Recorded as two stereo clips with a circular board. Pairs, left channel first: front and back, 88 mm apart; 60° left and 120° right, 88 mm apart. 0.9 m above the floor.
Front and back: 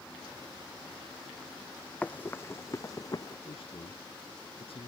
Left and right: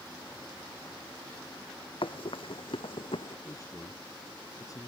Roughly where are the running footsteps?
Left.